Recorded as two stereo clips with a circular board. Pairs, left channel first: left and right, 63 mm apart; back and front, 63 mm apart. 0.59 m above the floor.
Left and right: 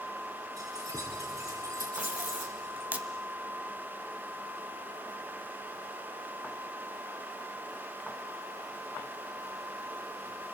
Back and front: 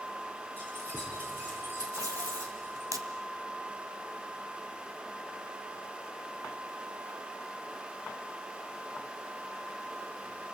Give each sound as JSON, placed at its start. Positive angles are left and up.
{"t": 0.6, "sound": "keys jangling", "azimuth_deg": -60, "distance_m": 8.0}
{"t": 1.9, "sound": "tape being pulled", "azimuth_deg": -25, "distance_m": 1.8}